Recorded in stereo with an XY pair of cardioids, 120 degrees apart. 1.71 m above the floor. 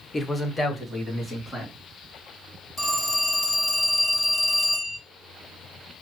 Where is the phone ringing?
10° left, 1.9 m.